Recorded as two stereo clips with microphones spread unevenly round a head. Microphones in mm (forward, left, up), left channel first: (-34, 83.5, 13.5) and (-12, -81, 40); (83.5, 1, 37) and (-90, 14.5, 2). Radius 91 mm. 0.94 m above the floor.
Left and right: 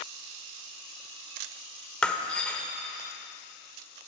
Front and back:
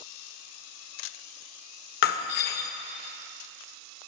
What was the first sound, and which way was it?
Breaking glass, 10° left.